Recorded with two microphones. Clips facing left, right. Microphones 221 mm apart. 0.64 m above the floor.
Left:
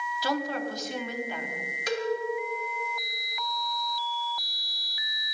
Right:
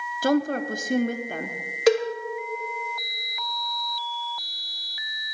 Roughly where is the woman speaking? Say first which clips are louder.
Right 8 dB; right.